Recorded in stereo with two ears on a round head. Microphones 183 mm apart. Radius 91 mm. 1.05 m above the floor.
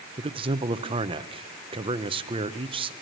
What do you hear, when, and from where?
0.2 s a man speaking: 25° right (ahead or behind), 0.7 m